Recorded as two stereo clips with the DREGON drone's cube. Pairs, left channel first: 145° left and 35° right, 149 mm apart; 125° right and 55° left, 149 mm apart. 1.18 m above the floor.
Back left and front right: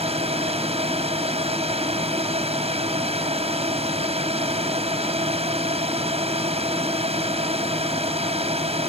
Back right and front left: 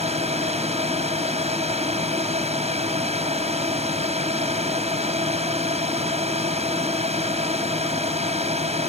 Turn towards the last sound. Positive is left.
turn(degrees=10)